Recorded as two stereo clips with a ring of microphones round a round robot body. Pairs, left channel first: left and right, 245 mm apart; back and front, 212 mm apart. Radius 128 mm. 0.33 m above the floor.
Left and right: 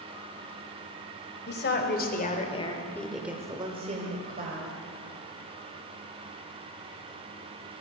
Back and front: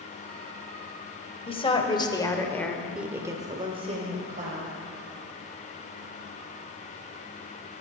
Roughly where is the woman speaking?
Behind left.